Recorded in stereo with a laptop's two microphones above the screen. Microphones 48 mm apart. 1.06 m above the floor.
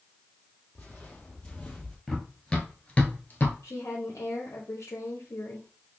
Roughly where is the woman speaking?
Left.